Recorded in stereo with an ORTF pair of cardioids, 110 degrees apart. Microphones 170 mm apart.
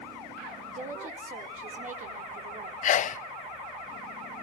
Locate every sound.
0.8 s a woman speaking: 50° right, 4.5 m
2.8 s a sneeze: 50° left, 0.8 m